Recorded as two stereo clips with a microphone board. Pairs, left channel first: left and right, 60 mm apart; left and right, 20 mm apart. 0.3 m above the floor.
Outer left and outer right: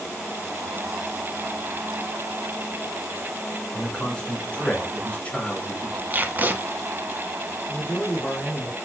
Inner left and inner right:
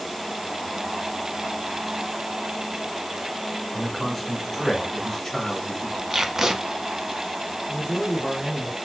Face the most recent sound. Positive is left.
turn(degrees=25)  # may be behind; listen again after turning